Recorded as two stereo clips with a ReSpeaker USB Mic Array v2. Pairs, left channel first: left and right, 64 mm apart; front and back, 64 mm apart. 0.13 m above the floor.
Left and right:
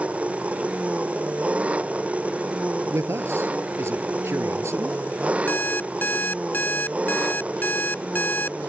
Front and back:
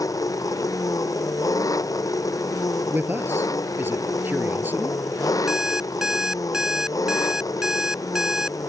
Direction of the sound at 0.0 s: 20° right.